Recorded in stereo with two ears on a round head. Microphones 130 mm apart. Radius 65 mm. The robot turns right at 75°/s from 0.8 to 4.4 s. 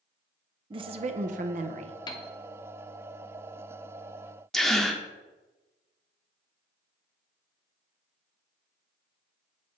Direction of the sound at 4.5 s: Centre (ahead or behind).